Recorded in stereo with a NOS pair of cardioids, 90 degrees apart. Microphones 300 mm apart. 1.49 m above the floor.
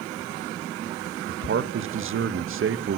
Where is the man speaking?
45° right, 1.5 m.